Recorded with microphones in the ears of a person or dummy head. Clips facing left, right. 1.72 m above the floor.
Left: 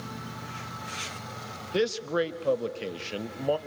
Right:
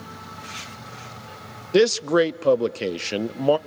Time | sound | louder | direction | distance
1.7 | a man speaking | right 9 dB | 75° right (ahead or behind) | 0.6 m